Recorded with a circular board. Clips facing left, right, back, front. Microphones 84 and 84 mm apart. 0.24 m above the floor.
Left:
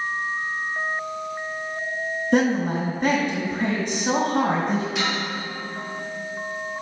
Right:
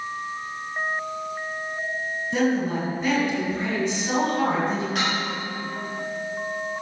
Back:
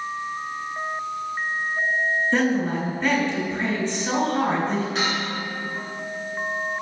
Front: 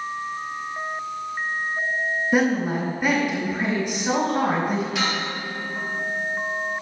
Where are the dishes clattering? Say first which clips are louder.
Even, even; 130° right, 3 m.